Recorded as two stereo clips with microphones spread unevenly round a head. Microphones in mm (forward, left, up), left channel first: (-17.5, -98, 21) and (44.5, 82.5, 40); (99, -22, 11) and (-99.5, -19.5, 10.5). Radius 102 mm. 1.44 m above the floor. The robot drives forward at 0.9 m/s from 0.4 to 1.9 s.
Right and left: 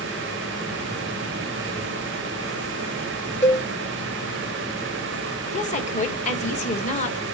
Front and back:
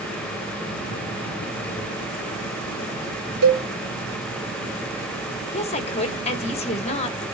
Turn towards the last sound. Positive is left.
turn(degrees=-60)